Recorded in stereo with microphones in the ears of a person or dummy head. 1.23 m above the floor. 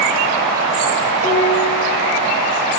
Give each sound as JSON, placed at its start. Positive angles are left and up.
{"t": 1.2, "sound": "dishes clattering", "side_deg": -65, "distance_m": 6.0}